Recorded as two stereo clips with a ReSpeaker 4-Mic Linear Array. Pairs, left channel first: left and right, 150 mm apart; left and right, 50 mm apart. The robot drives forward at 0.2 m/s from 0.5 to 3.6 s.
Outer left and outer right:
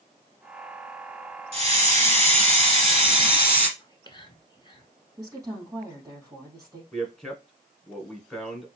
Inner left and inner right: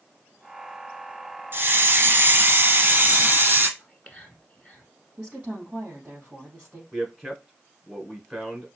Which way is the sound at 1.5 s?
40° right (ahead or behind).